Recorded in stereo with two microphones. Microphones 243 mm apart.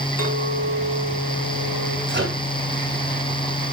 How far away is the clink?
About 5.5 m.